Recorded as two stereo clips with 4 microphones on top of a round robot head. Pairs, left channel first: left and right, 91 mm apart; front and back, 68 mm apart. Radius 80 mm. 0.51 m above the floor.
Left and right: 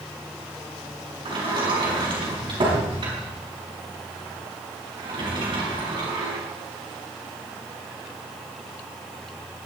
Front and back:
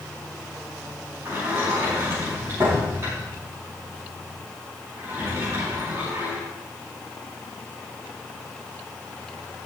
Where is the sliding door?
120° right, 5 m.